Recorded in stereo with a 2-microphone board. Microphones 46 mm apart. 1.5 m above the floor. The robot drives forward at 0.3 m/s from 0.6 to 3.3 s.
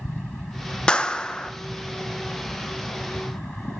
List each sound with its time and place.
0.9 s a clap: 20° left (ahead or behind), 0.6 m; by 1.5 s 15° left (ahead or behind), 0.7 m